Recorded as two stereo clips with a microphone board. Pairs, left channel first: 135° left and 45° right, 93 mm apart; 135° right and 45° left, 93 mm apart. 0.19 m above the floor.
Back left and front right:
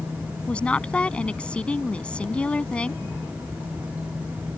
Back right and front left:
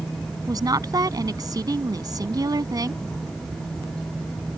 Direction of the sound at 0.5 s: 60° left.